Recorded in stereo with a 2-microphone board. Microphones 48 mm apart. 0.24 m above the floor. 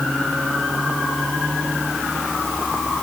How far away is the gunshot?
I don't hear a gunshot.